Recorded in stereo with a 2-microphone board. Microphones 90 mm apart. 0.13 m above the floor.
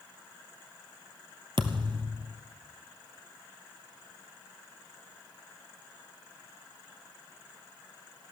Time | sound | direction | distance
1.6 | a thud | 65° right (ahead or behind) | 1.2 m